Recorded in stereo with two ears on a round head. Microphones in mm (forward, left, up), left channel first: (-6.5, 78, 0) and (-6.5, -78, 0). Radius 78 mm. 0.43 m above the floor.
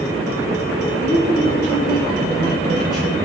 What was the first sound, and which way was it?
A woman speaking, 25° right (ahead or behind).